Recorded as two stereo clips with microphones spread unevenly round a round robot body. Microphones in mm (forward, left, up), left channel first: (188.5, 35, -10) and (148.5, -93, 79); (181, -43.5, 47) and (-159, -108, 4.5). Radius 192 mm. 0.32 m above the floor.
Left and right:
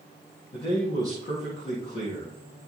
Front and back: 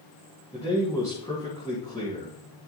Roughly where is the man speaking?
Left.